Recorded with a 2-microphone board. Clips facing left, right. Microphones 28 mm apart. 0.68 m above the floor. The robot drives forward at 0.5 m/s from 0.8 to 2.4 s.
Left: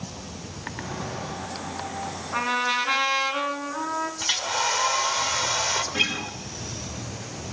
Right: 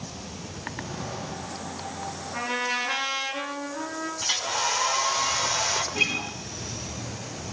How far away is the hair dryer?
About 2.5 m.